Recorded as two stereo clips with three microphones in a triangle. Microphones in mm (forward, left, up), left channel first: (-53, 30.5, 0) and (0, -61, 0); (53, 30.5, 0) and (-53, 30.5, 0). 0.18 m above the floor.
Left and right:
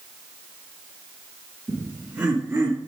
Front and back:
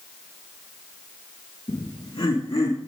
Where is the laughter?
5° right, 1.4 m; by 2.8 s 10° right, 1.8 m.